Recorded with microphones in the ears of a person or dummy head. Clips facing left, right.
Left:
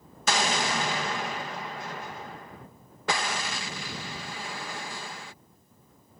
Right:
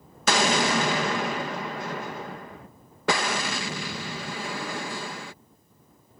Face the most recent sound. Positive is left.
turn(degrees=-55)  # may be behind; listen again after turning